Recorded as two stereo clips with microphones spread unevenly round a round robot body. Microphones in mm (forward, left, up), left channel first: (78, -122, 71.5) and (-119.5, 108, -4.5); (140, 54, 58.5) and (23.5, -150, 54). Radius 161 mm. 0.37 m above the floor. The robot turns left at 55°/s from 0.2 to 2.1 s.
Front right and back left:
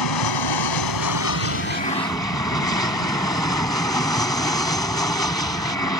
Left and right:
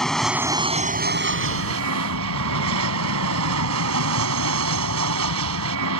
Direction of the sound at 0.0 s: 30° right.